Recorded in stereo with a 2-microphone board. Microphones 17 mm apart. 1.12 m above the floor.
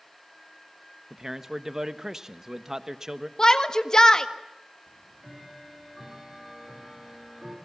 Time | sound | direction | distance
1.1 | a man speaking | 25° right (ahead or behind) | 1.2 m
3.4 | a shout | 40° left (ahead or behind) | 1.5 m
4.9 | ticking | 30° right (ahead or behind) | 6.5 m